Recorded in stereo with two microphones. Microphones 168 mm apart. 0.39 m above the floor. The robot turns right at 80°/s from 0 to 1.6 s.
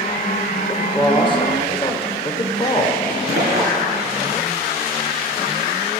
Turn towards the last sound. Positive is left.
turn(degrees=80)